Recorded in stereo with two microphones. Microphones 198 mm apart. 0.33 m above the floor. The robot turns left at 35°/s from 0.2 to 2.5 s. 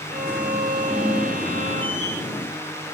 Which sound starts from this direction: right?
A violin, at 0.1 s.